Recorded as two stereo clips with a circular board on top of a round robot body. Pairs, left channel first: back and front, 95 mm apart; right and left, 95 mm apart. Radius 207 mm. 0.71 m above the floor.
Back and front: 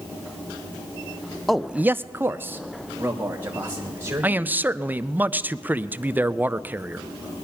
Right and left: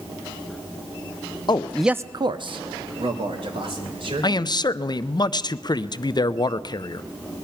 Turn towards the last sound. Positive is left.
turn(degrees=-65)